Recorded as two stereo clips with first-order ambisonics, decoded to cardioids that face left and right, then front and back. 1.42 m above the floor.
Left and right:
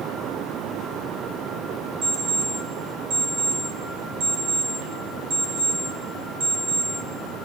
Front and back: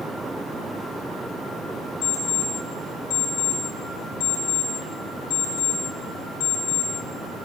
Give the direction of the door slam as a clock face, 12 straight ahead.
No door slam in this recording.